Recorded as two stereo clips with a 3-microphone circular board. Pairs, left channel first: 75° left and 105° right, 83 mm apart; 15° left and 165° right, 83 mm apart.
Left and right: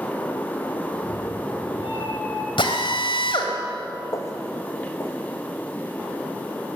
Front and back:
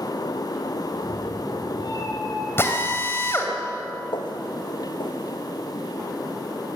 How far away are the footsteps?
About 1.8 m.